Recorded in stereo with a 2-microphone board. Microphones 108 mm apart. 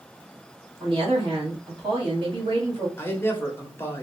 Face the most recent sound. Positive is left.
turn(degrees=20)  # may be behind; listen again after turning